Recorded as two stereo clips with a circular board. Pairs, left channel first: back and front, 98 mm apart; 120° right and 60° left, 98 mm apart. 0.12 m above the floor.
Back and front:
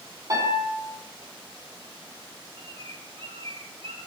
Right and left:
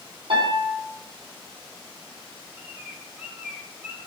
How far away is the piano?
About 6 m.